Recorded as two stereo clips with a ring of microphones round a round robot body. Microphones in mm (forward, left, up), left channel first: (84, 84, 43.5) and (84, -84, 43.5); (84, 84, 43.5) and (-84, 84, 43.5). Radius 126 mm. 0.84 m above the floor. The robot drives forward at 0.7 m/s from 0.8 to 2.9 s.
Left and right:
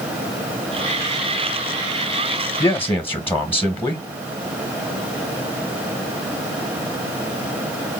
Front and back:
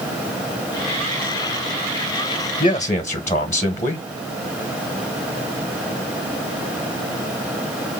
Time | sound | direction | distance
2.6 | a man speaking | 25° left | 1.0 m